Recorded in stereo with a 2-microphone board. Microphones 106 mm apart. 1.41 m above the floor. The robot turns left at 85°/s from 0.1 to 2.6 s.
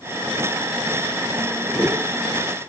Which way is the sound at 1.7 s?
10° right (ahead or behind).